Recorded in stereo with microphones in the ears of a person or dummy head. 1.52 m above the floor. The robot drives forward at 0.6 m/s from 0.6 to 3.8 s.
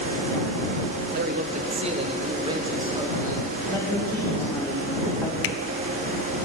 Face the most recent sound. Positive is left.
turn(degrees=65)  # may be behind; listen again after turning